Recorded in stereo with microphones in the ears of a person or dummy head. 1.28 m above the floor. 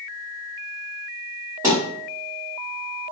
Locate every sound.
1.6 s a thud: 15° right (ahead or behind), 1.3 m